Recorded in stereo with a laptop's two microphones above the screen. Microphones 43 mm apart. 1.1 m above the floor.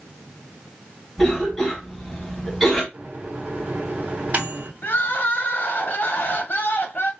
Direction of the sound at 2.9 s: 35° right (ahead or behind).